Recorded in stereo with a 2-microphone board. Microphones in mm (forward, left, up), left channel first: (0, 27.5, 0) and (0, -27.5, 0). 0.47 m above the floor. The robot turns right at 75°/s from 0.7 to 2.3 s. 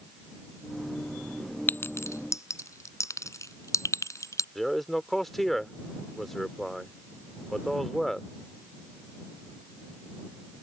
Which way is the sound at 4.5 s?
5° left (ahead or behind).